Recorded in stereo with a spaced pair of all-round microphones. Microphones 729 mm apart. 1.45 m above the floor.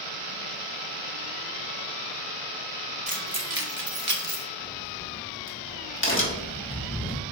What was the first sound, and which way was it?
Keys jangling, 10° right (ahead or behind).